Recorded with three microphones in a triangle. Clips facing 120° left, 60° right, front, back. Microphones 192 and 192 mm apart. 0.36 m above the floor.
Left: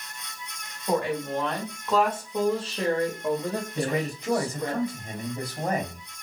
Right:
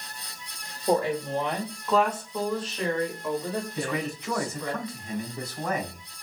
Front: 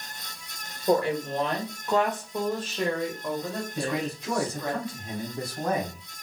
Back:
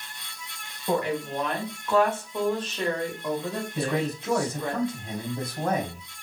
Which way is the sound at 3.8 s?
125° left.